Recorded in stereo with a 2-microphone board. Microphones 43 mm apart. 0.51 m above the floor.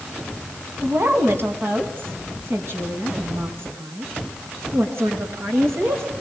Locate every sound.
0.8 s a woman speaking: 60° right (ahead or behind), 4 m; by 6.0 s 75° right (ahead or behind), 7 m